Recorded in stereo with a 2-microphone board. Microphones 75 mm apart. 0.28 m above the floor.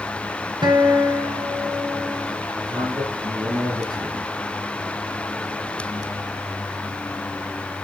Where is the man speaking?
60° right (ahead or behind), 5.5 m.